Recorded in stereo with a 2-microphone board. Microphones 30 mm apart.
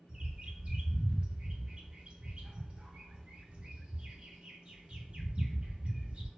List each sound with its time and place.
0.1 s a bird: 35° right (ahead or behind), 0.7 m